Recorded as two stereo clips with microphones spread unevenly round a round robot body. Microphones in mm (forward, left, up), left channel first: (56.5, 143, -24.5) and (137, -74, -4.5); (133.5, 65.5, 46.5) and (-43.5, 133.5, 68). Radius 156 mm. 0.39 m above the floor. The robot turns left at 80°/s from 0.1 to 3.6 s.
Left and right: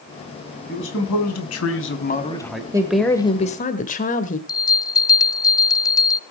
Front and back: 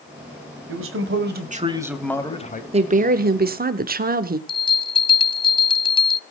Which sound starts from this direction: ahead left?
A bell, at 4.5 s.